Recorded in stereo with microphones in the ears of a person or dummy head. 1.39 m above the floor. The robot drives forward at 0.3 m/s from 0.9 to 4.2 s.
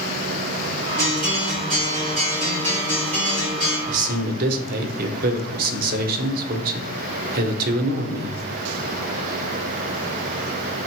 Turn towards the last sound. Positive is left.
turn(degrees=-50)  # may be behind; listen again after turning